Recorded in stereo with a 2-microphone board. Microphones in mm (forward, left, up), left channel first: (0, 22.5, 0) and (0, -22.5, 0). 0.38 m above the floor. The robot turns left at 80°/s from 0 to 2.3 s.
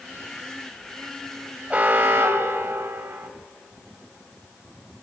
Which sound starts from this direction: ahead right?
An alarm, at 1.7 s.